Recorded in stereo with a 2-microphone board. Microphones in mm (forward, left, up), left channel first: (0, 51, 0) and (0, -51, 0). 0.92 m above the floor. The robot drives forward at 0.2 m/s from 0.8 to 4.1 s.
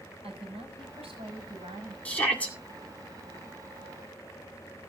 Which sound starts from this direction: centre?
A shout, at 2.0 s.